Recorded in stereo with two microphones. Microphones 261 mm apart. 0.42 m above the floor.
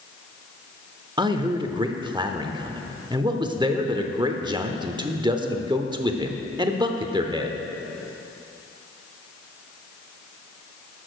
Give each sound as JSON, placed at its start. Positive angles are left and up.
{"t": 1.2, "sound": "a man speaking", "side_deg": -15, "distance_m": 0.8}